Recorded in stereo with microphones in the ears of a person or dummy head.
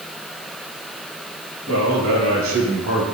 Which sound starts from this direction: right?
A man speaking, at 1.7 s.